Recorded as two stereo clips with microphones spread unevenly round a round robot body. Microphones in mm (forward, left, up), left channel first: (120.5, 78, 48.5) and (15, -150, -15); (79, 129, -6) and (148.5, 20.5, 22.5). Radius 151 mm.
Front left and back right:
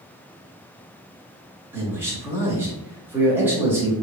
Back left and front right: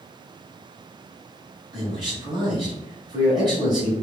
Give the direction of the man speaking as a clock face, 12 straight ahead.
3 o'clock.